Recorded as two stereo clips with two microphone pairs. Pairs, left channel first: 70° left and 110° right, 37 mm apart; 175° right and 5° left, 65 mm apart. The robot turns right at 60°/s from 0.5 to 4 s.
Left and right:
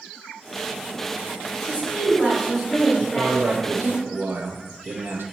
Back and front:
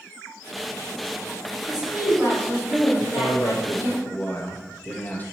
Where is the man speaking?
170° right, 0.6 m; by 5.3 s 110° right, 0.6 m.